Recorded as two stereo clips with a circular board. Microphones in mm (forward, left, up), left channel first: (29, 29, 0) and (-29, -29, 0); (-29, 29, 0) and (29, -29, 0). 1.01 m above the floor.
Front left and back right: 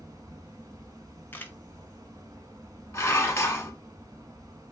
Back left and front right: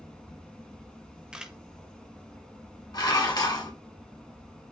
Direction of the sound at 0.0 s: 150° right.